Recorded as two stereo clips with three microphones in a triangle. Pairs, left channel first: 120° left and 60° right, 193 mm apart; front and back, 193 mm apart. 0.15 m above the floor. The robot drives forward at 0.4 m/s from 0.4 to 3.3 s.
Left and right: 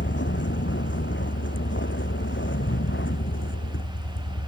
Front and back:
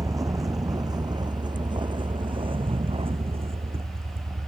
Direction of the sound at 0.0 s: 110° left.